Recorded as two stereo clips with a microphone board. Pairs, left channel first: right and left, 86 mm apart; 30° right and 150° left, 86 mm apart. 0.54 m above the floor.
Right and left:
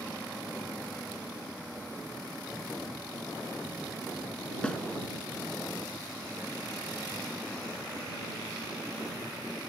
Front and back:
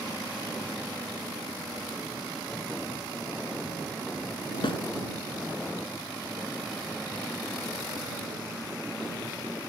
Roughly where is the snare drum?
Ahead.